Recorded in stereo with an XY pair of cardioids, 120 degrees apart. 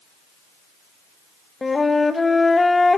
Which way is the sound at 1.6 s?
15° left.